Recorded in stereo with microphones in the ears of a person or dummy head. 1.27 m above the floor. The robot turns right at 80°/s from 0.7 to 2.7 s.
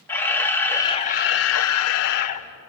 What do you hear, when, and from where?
0.1 s a camera shutter: 15° left, 1.3 m; by 2.7 s 175° left, 1.3 m